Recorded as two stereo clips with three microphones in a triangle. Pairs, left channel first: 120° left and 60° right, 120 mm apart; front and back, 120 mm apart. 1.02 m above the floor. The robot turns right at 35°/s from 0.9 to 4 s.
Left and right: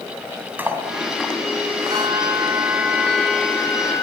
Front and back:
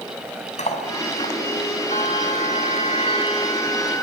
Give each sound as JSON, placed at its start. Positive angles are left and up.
{"t": 0.6, "sound": "cutlery clinking", "azimuth_deg": 15, "distance_m": 5.0}
{"t": 1.9, "sound": "a bell", "azimuth_deg": -5, "distance_m": 4.5}